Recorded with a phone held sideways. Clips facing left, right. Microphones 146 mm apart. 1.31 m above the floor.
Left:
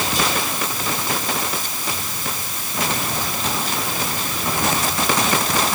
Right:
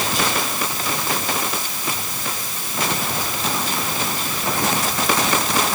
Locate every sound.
Only background noise.